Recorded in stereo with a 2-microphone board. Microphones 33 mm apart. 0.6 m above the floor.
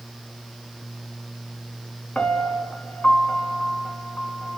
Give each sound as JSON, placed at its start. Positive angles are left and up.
{"t": 2.1, "sound": "a piano", "side_deg": 35, "distance_m": 1.9}